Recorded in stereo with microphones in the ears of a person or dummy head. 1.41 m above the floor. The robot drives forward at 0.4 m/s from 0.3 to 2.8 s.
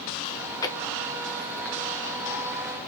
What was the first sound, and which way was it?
Chewing, 30° left (ahead or behind).